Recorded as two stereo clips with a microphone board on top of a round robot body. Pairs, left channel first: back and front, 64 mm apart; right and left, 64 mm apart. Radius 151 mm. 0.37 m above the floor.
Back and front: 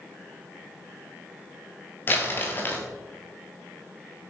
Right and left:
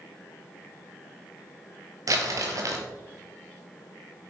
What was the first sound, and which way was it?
Crumpling, 125° left.